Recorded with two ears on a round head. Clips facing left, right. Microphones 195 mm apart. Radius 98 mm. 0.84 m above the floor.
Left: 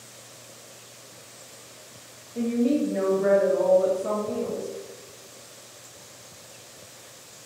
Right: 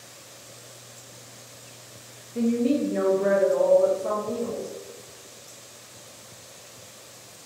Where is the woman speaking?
25° right (ahead or behind), 0.8 m; by 4.7 s 25° left (ahead or behind), 1.4 m.